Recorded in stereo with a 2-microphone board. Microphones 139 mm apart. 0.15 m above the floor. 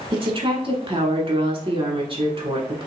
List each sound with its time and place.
0.1 s a woman speaking: 40° right (ahead or behind), 1.3 m